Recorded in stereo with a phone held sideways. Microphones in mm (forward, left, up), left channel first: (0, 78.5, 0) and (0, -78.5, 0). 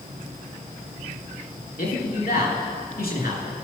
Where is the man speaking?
70° left (ahead or behind), 2.5 m.